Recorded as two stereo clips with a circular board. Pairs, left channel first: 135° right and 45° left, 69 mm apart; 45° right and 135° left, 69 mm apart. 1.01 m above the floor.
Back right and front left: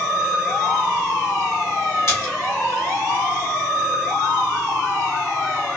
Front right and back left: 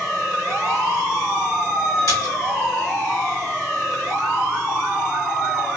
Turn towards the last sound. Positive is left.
turn(degrees=-90)